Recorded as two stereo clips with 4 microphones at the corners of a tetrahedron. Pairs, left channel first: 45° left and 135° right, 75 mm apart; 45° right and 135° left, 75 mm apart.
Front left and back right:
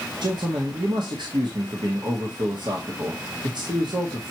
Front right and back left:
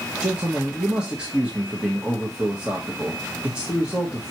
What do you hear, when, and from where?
0.2 s a man speaking: 150° right, 1.3 m